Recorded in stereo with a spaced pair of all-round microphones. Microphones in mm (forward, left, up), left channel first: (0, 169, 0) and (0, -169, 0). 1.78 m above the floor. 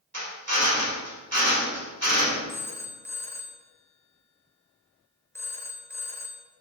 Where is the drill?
45° right (ahead or behind), 1.7 m.